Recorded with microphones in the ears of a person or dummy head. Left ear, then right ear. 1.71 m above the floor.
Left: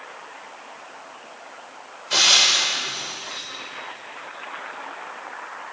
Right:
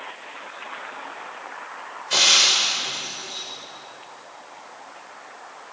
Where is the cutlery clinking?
I don't hear cutlery clinking.